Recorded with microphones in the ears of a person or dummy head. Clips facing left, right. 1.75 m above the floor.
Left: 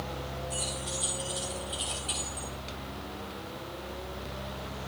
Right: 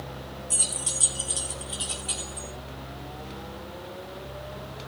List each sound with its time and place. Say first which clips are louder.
0.5 s keys jangling: left 1 dB; 50° right (ahead or behind), 2 m; by 2.5 s 10° right (ahead or behind), 2 m